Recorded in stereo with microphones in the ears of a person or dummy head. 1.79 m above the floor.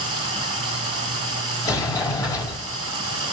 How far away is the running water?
About 5.5 m.